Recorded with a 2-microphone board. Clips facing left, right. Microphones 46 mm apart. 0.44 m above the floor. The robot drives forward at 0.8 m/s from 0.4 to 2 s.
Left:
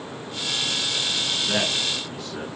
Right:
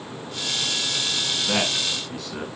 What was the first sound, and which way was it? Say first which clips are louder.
A man speaking: right 1 dB; 75° right (ahead or behind).